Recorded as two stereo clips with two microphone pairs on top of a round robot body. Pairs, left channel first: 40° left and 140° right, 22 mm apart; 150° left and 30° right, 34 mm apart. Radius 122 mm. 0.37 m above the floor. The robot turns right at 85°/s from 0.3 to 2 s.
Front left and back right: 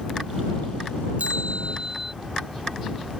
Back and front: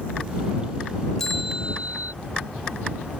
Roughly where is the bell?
Behind right.